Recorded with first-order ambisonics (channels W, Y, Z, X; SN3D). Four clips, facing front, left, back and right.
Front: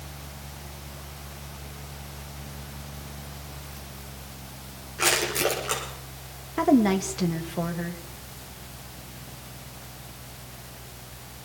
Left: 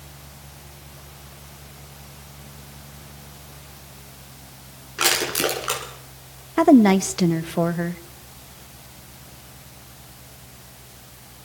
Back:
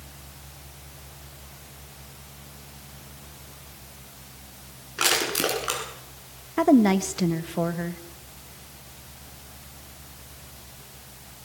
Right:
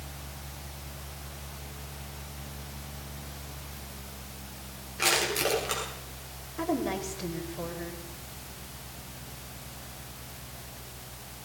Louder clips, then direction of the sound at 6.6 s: Left 16 dB, back 2 dB; 100° left.